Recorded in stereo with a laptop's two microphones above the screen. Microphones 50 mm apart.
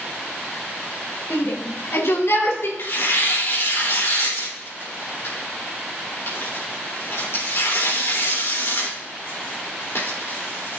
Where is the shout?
60° left (ahead or behind), 4.5 m; by 2.7 s 75° left (ahead or behind), 4 m.